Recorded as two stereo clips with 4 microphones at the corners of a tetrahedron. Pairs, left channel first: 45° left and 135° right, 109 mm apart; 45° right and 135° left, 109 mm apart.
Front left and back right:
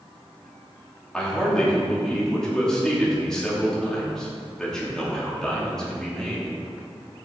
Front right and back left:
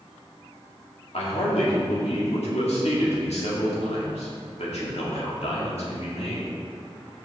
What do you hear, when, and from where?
1.1 s a man speaking: 40° right, 1.8 m